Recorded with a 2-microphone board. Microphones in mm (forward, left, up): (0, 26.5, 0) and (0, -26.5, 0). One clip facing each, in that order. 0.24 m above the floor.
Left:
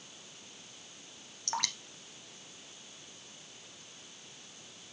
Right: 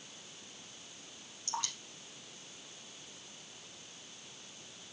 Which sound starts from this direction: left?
Dripping, at 1.5 s.